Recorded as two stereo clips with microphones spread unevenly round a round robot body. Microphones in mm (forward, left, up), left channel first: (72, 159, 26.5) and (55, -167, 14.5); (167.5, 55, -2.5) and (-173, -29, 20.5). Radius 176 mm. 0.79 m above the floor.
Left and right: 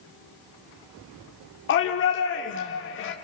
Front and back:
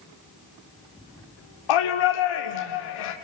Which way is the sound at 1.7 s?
30° left.